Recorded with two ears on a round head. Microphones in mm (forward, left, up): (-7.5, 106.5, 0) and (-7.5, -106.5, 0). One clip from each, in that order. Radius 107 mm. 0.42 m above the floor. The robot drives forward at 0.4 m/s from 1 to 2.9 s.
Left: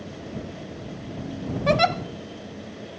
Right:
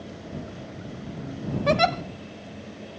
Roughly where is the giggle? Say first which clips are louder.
Left 1 dB; centre.